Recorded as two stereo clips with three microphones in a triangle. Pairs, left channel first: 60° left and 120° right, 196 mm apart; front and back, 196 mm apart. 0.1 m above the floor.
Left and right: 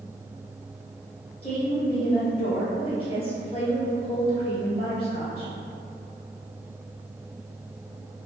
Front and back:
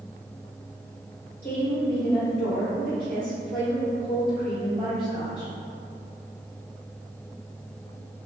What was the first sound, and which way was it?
A woman speaking, 10° left.